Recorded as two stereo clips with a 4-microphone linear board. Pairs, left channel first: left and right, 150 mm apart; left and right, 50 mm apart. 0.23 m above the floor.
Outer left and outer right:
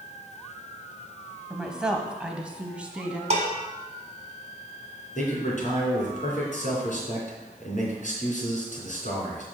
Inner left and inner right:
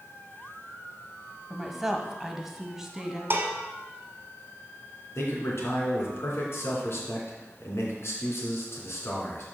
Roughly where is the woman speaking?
Centre.